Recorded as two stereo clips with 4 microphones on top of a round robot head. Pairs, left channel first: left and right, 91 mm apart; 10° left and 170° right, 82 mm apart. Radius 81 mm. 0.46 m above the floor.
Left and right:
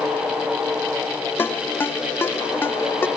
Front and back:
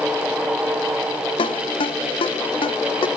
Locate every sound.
1.4 s a ringtone: 25° left